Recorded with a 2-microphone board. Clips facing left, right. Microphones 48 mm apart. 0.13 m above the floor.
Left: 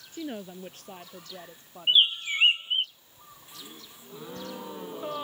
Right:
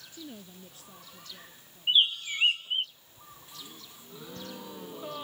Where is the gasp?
20° left (ahead or behind).